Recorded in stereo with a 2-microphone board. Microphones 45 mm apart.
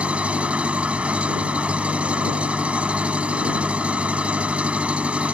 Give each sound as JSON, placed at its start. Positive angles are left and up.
{"t": 0.0, "sound": "an engine running", "side_deg": -25}